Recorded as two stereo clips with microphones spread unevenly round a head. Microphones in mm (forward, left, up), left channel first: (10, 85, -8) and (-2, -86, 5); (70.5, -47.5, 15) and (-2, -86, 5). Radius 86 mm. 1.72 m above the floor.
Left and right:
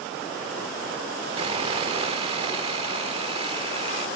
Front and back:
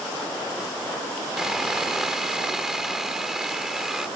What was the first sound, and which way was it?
Sawing, 60° right.